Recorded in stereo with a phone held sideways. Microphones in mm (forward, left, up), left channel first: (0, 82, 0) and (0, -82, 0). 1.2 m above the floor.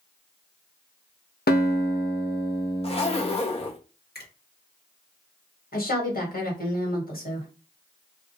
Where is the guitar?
70° left (ahead or behind), 0.7 m.